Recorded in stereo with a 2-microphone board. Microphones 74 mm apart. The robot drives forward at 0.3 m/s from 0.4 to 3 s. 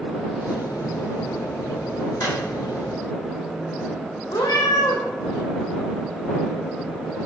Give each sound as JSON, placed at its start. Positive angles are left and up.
{"t": 2.2, "sound": "a drawer", "side_deg": 45, "distance_m": 3.0}
{"t": 4.3, "sound": "a cat meowing", "side_deg": 75, "distance_m": 2.5}